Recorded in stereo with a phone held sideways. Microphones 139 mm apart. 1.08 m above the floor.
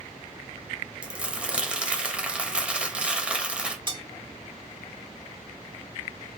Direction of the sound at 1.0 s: 5° right (ahead or behind).